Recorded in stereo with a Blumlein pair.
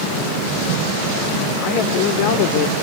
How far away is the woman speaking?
About 3 m.